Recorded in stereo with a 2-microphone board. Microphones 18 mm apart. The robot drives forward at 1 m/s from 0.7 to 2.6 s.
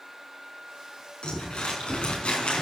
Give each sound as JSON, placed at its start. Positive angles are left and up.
{"t": 1.2, "sound": "crumpling", "side_deg": 50, "distance_m": 6.0}